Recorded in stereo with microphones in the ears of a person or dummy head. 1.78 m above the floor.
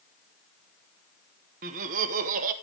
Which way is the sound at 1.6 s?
45° right (ahead or behind).